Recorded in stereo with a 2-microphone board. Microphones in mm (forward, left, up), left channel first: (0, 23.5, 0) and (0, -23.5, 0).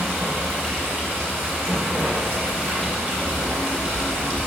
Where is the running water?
30° right (ahead or behind), 3 m.